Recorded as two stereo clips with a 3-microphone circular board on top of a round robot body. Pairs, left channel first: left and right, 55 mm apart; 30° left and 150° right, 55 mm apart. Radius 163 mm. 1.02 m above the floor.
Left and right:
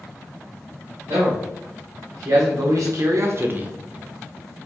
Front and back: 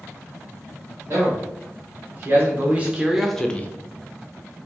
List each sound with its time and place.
1.1 s a man speaking: 110° right, 1.5 m; by 3.7 s 25° right, 0.5 m